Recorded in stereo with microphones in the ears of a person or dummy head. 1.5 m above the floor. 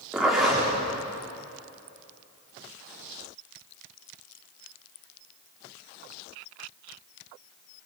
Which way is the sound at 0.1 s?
5° right (ahead or behind).